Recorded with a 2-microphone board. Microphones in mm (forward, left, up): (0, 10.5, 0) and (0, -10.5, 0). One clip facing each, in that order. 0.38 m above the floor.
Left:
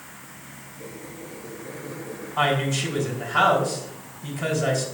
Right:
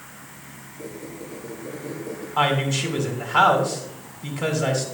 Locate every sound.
0.8 s a squeak: 80° right, 4 m
2.4 s a woman speaking: 40° right (ahead or behind), 3.5 m